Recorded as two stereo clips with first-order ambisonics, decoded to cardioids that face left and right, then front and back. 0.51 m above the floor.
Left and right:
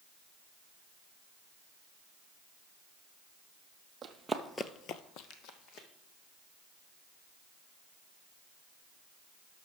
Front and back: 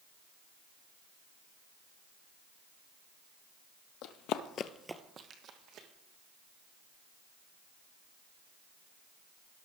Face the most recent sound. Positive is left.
turn(degrees=130)